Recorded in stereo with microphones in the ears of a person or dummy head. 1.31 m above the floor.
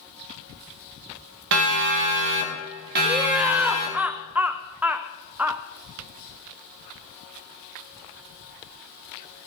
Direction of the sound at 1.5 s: 70° right (ahead or behind).